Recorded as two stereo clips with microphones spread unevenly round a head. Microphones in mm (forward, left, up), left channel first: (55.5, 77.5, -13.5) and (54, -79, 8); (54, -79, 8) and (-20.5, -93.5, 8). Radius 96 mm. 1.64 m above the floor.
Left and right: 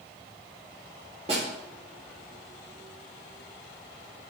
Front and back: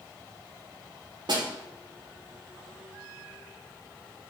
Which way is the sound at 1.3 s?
150° right.